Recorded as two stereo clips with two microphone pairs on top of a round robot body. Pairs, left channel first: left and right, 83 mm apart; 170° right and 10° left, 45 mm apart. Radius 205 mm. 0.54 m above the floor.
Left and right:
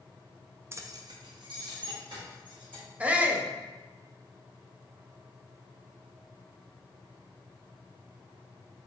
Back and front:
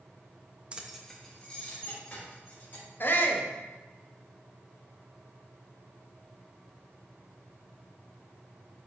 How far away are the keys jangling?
About 0.6 m.